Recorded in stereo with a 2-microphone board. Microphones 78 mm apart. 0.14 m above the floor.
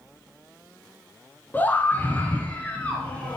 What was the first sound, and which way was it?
A scream, 25° left (ahead or behind).